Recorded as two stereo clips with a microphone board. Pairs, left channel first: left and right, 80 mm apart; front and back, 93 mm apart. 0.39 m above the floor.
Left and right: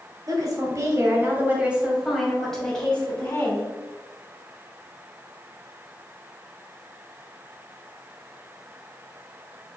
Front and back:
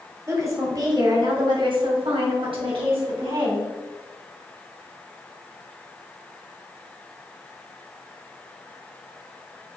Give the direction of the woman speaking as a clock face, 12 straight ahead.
4 o'clock.